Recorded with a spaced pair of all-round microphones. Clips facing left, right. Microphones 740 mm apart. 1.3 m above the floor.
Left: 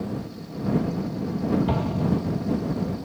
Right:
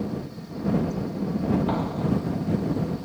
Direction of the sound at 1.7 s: 55° left (ahead or behind).